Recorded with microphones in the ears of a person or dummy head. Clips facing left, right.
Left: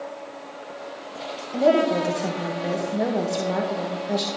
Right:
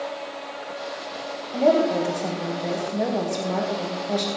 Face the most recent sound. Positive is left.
turn(degrees=10)  # may be behind; listen again after turning